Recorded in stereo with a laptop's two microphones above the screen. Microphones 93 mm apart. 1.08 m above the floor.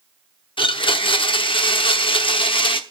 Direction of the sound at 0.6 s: 65° left (ahead or behind).